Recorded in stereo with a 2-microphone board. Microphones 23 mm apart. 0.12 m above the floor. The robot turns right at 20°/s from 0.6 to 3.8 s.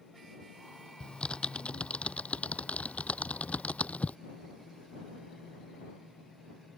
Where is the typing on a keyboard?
45° left (ahead or behind); by 4.2 s 75° left (ahead or behind).